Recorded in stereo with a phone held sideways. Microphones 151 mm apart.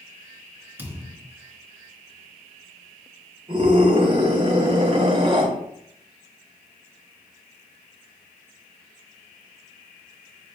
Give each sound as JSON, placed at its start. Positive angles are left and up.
{"t": 0.8, "sound": "a thud", "side_deg": -15, "distance_m": 2.5}
{"t": 3.5, "sound": "a scream", "side_deg": -40, "distance_m": 5.0}